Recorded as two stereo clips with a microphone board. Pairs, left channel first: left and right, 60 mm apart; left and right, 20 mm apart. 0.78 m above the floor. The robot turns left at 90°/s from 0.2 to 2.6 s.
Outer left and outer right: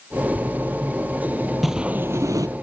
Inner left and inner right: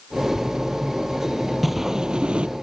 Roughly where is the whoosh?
Ahead.